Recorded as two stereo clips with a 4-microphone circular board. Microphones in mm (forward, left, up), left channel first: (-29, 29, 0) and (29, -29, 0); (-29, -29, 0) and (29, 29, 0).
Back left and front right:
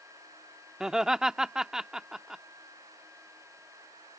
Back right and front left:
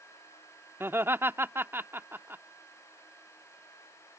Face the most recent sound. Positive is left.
turn(degrees=30)